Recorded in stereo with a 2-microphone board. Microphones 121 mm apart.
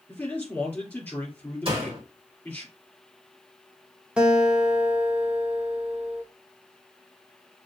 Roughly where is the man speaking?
Centre.